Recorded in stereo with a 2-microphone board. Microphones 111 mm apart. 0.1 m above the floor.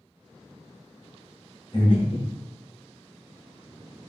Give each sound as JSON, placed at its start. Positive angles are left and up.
{"t": 1.7, "sound": "breathing", "side_deg": 55, "distance_m": 1.4}